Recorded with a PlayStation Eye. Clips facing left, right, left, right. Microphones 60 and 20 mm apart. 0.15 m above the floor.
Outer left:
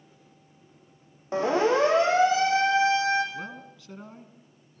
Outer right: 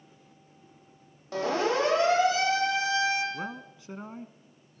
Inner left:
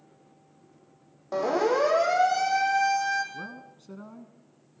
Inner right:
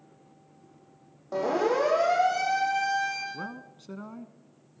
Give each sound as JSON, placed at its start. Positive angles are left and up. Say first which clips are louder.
{"t": 1.3, "sound": "a siren", "louder": "outer left 4 dB, inner left 1 dB", "side_deg": 20, "distance_m": 6.5}
{"t": 3.3, "sound": "a man speaking", "louder": "outer right 1 dB, inner right 1 dB", "side_deg": -20, "distance_m": 1.2}